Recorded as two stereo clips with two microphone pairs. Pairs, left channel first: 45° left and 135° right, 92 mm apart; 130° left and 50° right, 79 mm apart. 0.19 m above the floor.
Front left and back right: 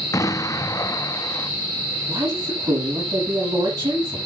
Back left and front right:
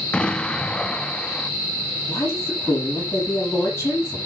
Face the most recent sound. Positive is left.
turn(degrees=-170)